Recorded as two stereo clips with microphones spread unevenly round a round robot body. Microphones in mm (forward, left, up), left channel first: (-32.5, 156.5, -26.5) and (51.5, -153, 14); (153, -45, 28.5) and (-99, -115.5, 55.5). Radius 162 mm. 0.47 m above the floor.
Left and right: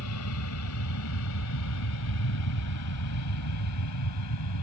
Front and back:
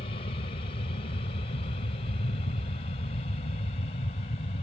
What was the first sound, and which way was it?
An aircraft, 80° left.